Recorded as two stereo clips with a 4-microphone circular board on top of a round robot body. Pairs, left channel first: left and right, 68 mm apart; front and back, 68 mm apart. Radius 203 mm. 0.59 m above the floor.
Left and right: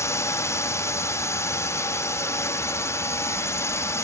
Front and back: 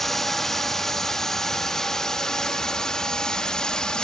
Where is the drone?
80° left; by 4.0 s 75° left.